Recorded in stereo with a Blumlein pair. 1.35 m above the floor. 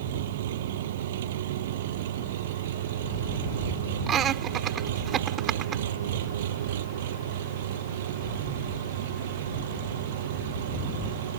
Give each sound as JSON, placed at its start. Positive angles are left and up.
{"t": 0.0, "sound": "an engine running", "azimuth_deg": -60}
{"t": 4.1, "sound": "laughter", "azimuth_deg": -30}